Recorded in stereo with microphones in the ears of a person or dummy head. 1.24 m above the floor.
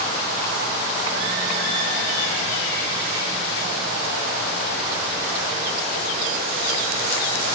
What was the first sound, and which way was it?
Only background noise.